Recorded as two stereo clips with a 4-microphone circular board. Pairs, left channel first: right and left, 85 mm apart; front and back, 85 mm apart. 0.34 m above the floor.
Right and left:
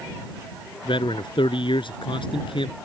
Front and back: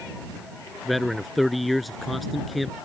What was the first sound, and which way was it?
A man speaking, 90° right.